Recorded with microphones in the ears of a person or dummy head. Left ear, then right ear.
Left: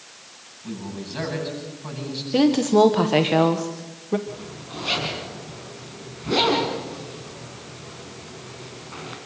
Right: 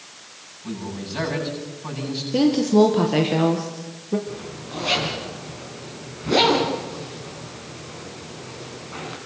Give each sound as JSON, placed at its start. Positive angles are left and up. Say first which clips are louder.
{"t": 0.6, "sound": "a man speaking", "louder": "right 2 dB", "side_deg": -5, "distance_m": 9.5}
{"t": 2.3, "sound": "a woman speaking", "louder": "even", "side_deg": 30, "distance_m": 1.3}
{"t": 4.3, "sound": "a zipper", "louder": "right 2 dB", "side_deg": 0, "distance_m": 5.0}